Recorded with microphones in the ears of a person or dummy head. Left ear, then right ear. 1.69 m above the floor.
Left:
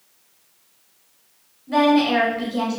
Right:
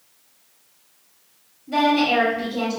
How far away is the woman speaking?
About 1.0 m.